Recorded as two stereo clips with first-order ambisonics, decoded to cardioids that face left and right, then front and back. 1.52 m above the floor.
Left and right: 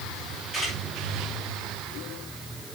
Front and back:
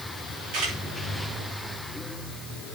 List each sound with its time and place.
0.5 s a camera shutter: 170° right, 7.5 m